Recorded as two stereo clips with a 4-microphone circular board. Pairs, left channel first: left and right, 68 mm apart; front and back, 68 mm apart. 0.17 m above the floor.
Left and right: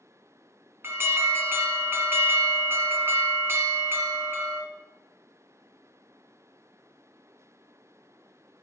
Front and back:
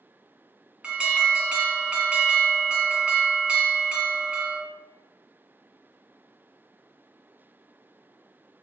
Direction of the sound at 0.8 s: 115° right.